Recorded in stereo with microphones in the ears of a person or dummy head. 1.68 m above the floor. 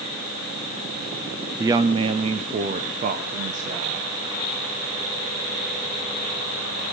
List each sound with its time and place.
1.6 s a woman speaking: 15° right (ahead or behind), 0.5 m; by 4.1 s 45° right (ahead or behind), 1.9 m